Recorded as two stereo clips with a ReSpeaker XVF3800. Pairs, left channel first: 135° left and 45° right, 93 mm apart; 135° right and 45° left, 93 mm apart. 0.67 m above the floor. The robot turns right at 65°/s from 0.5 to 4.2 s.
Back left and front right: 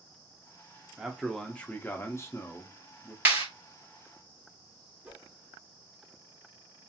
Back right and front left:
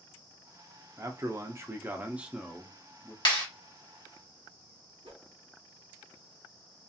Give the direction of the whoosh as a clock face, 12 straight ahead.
11 o'clock.